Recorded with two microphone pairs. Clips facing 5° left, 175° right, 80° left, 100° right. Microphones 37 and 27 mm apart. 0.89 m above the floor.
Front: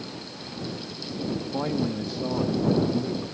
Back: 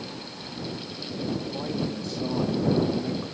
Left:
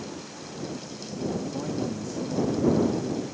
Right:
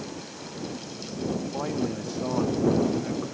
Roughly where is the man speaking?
Ahead right.